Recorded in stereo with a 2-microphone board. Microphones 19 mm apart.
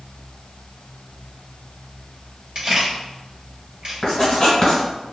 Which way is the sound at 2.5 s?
45° right (ahead or behind).